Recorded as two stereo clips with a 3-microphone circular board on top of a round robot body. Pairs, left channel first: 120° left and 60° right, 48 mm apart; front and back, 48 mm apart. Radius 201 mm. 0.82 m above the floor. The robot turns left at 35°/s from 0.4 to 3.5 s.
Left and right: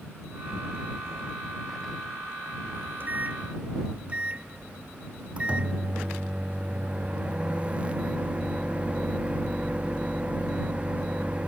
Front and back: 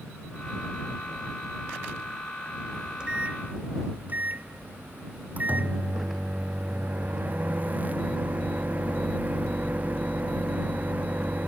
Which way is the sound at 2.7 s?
95° right.